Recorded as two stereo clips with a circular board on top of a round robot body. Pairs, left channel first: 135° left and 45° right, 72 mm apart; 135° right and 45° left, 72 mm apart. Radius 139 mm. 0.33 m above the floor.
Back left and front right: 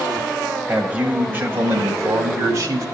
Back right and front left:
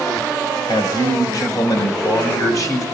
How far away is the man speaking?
About 2.5 m.